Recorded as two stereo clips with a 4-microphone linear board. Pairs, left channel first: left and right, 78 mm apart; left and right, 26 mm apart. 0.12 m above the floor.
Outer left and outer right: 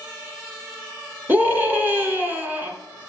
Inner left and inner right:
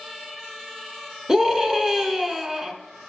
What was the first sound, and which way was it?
A scream, 25° right (ahead or behind).